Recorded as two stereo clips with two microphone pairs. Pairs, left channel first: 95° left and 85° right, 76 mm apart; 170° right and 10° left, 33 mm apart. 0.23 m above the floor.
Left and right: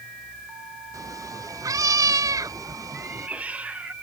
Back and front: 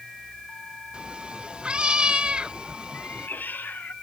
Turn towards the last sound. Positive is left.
turn(degrees=-155)